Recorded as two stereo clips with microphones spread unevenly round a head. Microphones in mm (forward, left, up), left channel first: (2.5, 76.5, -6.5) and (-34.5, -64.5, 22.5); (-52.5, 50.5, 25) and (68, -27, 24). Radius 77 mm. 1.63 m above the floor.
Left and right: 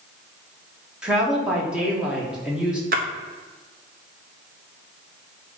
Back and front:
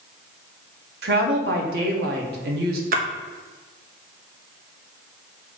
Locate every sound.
1.0 s a woman speaking: 20° right, 1.6 m
2.9 s a splash: 65° right, 1.0 m